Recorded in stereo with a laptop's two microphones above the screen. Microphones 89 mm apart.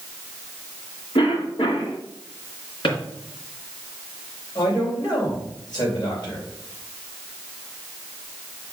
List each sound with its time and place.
1.1 s a cough: 70° left (ahead or behind), 1.7 m
2.8 s a drawer: 65° left (ahead or behind), 3 m
4.5 s a man speaking: 50° left (ahead or behind), 4 m